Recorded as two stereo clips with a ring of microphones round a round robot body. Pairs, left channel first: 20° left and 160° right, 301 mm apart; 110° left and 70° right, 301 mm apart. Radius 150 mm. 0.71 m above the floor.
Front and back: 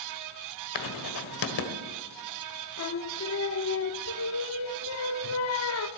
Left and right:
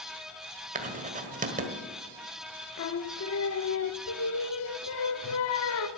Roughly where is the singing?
Left.